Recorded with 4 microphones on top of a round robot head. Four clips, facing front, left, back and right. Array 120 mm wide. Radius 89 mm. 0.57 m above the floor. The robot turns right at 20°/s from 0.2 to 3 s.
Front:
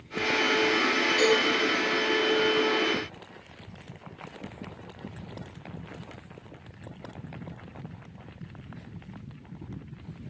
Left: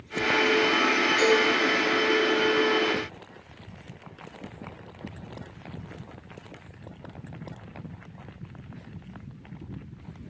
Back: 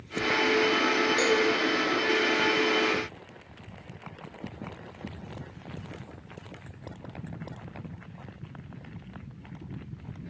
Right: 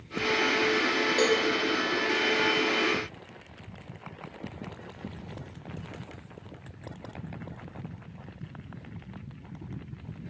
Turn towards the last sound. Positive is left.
turn(degrees=-70)